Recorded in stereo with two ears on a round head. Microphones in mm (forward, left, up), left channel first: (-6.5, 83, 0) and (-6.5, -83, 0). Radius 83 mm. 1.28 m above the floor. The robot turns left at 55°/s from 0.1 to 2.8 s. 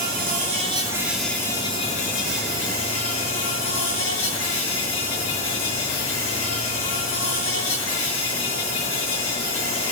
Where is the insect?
120° right, 7.5 m; by 9.9 s 90° left, 7.5 m.